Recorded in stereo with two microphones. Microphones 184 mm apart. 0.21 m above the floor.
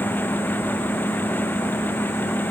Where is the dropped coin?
No dropped coin in this recording.